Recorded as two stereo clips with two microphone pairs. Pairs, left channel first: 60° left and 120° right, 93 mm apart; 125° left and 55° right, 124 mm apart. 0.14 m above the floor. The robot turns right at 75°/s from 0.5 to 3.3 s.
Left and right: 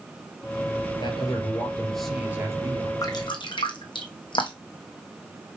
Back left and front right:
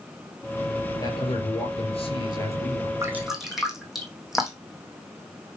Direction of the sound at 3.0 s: 10° left.